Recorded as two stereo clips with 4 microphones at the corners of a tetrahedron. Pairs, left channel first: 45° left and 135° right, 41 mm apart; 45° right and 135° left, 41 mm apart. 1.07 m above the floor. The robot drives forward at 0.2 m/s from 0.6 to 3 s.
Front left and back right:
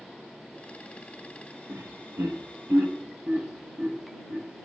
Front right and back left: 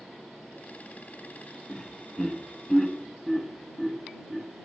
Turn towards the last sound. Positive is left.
turn(degrees=-135)